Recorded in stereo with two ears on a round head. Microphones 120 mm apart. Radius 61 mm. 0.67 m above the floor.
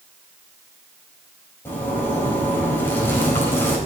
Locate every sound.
1.6 s a zipper: 20° left (ahead or behind), 4 m